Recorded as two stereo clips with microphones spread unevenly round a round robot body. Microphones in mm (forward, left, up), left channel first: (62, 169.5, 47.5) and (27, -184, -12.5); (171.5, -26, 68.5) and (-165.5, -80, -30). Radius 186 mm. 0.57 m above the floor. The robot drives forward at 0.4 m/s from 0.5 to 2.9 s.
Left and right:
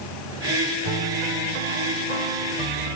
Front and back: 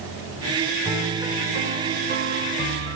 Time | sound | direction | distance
0.8 | a piano | 85° right | 1.6 m